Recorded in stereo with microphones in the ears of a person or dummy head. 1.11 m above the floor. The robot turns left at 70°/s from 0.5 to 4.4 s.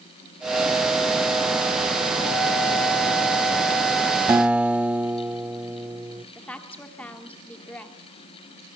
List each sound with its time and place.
4.3 s a guitar: 10° right (ahead or behind), 0.6 m; by 6.2 s 5° right (ahead or behind), 0.6 m
6.3 s a woman speaking: 5° left (ahead or behind), 2.5 m